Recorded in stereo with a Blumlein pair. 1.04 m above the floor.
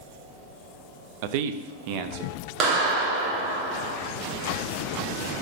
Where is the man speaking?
50° right, 0.6 m; by 3.6 s 40° right, 1.8 m.